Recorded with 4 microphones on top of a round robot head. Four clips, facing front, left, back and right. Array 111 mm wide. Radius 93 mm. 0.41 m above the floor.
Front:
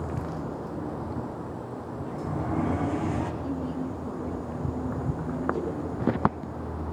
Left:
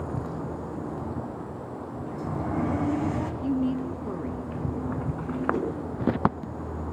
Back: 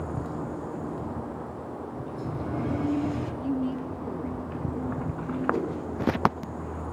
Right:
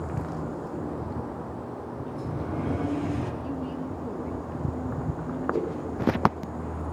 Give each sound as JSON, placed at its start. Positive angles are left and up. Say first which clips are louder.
{"t": 2.1, "sound": "a sliding door", "louder": "left 3 dB, front 3 dB", "azimuth_deg": 55, "distance_m": 3.5}
{"t": 3.4, "sound": "a woman speaking", "louder": "left 6 dB, back 2 dB", "azimuth_deg": 90, "distance_m": 5.0}
{"t": 5.5, "sound": "a whoosh", "louder": "right 1 dB, back 3 dB", "azimuth_deg": 130, "distance_m": 4.5}